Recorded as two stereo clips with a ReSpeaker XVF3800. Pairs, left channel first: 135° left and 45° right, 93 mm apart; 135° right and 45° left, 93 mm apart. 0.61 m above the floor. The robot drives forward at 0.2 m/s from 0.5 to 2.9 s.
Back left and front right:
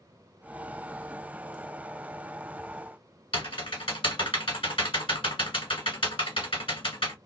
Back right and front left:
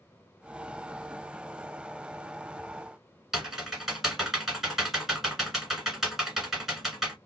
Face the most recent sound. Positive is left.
turn(degrees=135)